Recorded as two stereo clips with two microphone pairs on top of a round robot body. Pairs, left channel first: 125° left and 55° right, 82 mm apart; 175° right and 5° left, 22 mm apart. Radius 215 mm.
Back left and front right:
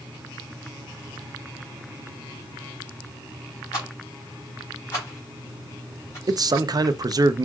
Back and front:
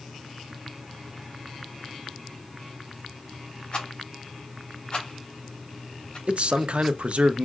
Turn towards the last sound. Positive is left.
turn(degrees=-20)